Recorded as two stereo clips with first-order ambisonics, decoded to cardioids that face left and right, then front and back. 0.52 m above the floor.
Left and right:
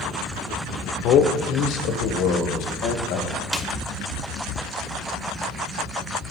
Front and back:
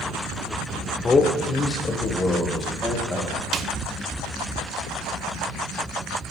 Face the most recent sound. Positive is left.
turn(degrees=-170)